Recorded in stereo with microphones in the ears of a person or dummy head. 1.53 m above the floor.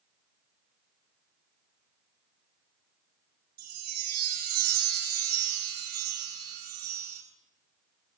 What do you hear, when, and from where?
3.6 s a chime: 50° right (ahead or behind), 3.5 m